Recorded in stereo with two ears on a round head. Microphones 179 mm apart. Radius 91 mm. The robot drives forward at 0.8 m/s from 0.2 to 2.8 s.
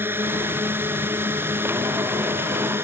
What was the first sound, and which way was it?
A drone, 10° right (ahead or behind).